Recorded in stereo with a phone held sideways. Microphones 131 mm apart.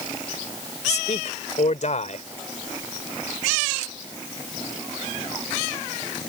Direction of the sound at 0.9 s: 60° left (ahead or behind).